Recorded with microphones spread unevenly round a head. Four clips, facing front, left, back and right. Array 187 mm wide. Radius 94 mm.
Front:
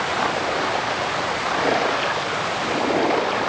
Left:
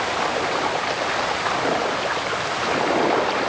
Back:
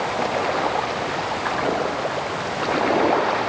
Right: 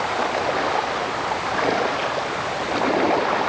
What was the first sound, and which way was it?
Only background noise.